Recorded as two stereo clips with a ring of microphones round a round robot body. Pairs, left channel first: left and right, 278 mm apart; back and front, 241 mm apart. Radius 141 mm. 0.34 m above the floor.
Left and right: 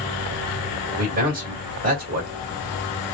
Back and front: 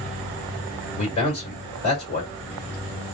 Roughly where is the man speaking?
Behind right.